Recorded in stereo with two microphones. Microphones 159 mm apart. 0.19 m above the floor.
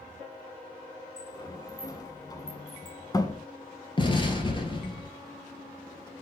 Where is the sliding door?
25° left (ahead or behind), 0.8 m.